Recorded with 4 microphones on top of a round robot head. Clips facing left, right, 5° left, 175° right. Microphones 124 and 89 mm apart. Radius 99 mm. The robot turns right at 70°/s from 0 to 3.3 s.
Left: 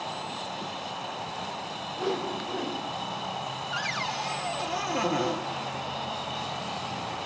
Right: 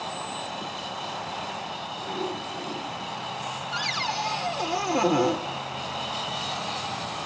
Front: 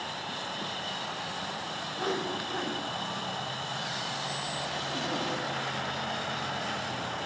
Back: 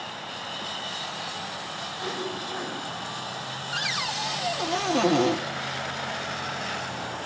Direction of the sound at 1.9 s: 55° left.